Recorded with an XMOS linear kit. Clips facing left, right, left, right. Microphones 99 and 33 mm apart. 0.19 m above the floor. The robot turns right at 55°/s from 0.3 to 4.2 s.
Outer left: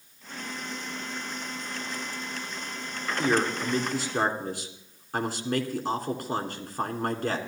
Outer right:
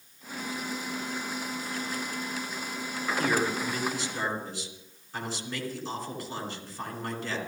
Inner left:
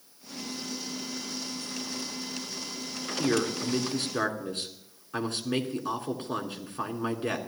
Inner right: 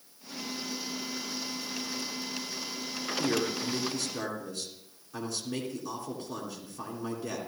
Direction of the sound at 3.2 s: 25° left.